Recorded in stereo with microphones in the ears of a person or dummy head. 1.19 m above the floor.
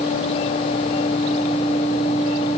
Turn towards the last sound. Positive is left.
No sound to turn to.